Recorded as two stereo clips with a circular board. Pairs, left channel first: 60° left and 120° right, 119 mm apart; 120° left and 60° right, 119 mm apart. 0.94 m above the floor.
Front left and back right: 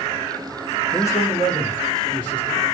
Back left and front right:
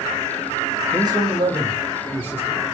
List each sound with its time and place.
0.9 s a man speaking: 10° right, 1.0 m; by 2.6 s 15° left, 3 m